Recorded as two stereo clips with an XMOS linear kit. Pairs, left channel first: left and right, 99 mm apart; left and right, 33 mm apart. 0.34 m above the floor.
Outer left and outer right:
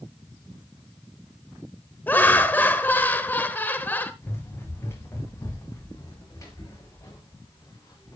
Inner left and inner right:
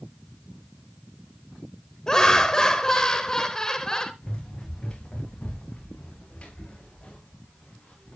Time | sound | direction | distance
2.1 | laughter | 20° left (ahead or behind) | 1.0 m
4.2 | running footsteps | 25° left (ahead or behind) | 3.5 m